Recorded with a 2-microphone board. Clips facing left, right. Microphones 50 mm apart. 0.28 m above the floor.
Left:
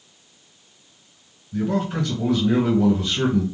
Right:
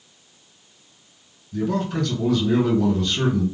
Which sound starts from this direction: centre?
A man speaking, at 1.5 s.